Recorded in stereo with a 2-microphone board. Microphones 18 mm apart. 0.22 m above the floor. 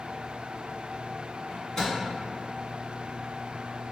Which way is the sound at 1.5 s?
30° left (ahead or behind).